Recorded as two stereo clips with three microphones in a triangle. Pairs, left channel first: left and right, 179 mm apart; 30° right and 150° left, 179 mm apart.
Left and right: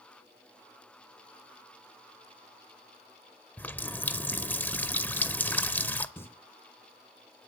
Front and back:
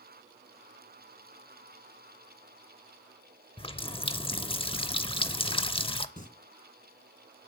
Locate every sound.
3.6 s a running tap: 15° left, 0.6 m
6.2 s singing: 10° left, 2 m